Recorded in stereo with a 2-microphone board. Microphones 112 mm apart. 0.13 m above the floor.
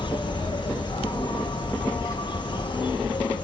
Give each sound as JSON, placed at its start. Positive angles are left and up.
{"t": 0.0, "sound": "an insect", "side_deg": 45, "distance_m": 0.8}